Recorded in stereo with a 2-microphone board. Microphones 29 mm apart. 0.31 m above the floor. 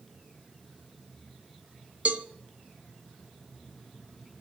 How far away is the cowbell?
About 0.8 m.